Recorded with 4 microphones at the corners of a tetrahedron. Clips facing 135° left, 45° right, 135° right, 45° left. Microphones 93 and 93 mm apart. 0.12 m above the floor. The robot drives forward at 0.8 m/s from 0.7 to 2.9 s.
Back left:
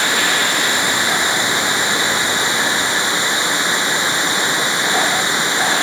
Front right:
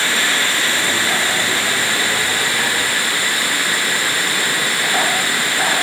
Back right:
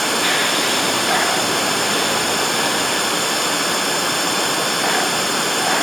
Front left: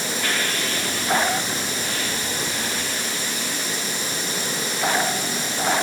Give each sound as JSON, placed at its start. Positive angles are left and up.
{"t": 0.0, "sound": "running water", "azimuth_deg": -155}